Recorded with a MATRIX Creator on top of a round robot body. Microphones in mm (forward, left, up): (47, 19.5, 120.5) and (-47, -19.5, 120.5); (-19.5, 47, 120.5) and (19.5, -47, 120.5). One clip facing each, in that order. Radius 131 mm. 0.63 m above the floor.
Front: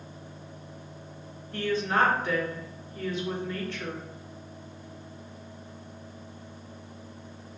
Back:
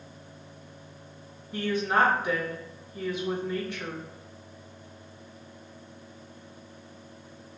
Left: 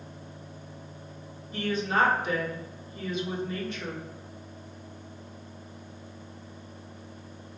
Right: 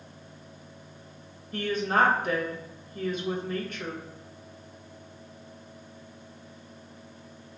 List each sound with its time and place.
1.5 s a woman speaking: 85° right, 1.1 m